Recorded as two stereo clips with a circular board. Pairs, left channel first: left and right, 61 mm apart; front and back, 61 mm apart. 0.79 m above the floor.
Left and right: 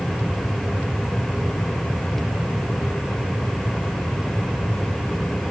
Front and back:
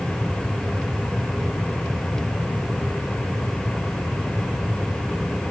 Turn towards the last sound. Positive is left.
No sound to turn to.